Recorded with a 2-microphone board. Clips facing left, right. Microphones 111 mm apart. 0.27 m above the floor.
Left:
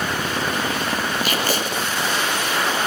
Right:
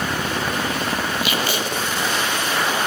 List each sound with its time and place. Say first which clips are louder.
1.2 s tape being pulled: even; 45° left (ahead or behind), 5 m